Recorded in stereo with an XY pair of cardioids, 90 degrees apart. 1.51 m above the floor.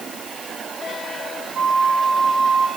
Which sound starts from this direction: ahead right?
A flute, at 1.6 s.